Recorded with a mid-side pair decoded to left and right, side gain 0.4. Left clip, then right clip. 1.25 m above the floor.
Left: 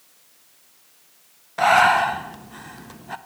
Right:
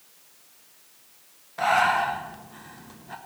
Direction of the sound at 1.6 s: 50° left.